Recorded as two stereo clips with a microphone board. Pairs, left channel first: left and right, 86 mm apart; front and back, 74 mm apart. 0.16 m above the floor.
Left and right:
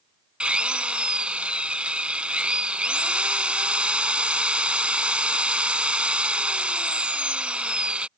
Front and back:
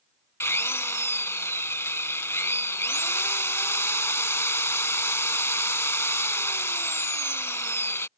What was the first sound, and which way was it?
A drill, 20° right.